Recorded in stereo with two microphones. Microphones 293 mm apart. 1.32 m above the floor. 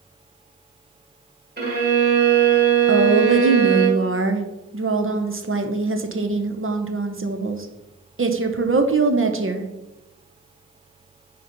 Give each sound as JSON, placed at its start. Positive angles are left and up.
{"t": 1.6, "sound": "a violin", "side_deg": -35, "distance_m": 1.5}
{"t": 2.9, "sound": "a woman speaking", "side_deg": -45, "distance_m": 0.6}